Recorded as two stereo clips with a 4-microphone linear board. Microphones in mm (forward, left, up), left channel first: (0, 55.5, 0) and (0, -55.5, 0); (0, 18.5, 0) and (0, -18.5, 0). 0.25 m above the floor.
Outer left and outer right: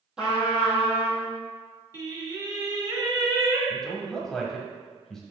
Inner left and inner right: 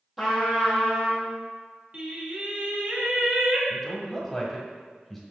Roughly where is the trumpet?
Centre.